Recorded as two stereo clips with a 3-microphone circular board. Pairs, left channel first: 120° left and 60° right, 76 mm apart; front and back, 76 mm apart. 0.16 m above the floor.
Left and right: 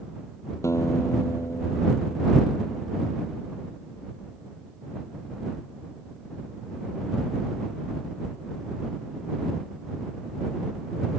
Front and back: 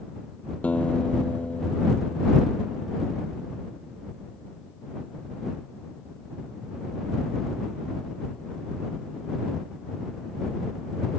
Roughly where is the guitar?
Left.